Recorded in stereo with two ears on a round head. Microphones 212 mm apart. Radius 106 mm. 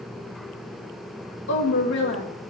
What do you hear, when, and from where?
1.5 s a woman speaking: 50° left (ahead or behind), 2.5 m